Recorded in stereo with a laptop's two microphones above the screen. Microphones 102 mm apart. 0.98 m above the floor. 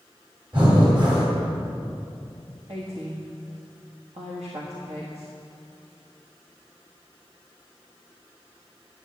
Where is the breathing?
50° right (ahead or behind), 3.5 m.